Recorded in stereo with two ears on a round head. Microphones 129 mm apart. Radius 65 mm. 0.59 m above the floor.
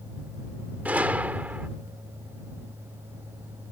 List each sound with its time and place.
0.8 s a gunshot: 10° right (ahead or behind)